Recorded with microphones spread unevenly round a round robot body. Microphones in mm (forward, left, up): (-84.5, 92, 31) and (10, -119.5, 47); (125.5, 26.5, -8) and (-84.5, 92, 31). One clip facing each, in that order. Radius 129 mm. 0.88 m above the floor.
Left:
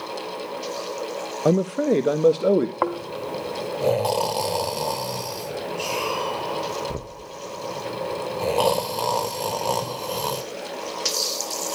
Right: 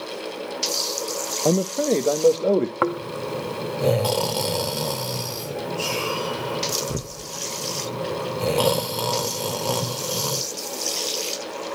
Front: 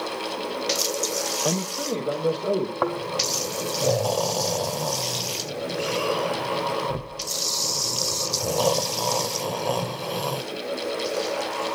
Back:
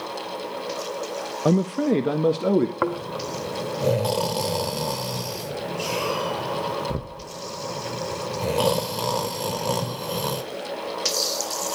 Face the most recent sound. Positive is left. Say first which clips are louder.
# right 2 dB, even
turn(degrees=-135)